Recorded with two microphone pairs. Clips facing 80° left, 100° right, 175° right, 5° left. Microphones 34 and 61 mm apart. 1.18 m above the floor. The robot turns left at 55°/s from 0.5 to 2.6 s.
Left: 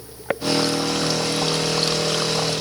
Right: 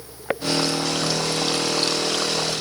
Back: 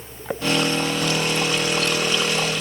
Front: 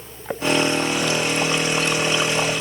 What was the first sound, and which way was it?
Only background noise.